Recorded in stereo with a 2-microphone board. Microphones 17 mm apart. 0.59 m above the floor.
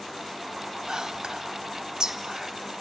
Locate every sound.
0.9 s whispering: 50° right (ahead or behind), 1.0 m